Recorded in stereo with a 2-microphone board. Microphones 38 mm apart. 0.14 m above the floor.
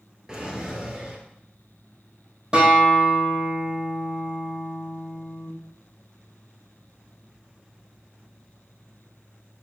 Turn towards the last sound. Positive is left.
turn(degrees=-30)  # may be behind; listen again after turning